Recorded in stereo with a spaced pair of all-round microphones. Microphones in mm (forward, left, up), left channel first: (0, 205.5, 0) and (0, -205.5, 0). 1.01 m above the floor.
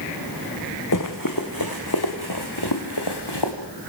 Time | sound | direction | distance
0.9 | running footsteps | 45° left (ahead or behind) | 3 m